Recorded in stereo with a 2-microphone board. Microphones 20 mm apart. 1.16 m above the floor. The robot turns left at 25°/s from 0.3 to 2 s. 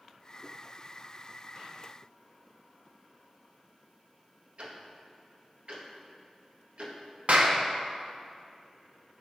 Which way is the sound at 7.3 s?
65° right (ahead or behind).